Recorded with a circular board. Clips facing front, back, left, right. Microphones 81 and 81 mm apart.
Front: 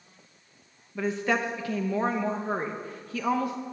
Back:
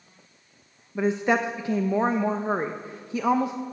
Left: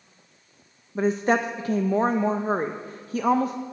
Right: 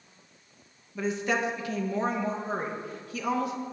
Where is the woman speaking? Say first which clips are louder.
Back 4 dB, left 6 dB; 120° left, 0.6 m.